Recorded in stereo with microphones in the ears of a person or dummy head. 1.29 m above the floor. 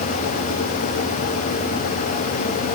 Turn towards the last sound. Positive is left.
No sound to turn to.